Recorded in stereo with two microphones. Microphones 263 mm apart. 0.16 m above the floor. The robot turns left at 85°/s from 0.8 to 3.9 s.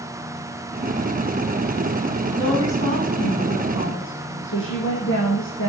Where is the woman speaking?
Straight behind, 7 m; by 5.7 s 50° left, 7 m.